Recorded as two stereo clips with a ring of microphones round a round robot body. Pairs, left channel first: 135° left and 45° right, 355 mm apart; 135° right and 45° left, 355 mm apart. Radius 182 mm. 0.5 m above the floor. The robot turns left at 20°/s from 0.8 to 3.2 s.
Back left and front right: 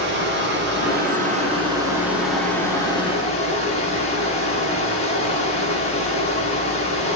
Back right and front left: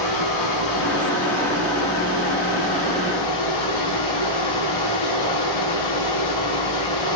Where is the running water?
105° right, 5 m; by 7.2 s 150° right, 5 m.